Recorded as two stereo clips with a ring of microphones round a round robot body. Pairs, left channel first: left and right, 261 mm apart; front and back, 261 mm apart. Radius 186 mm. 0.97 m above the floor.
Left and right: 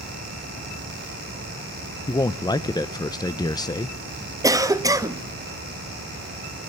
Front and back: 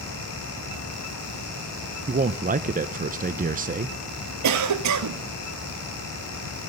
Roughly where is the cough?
Behind.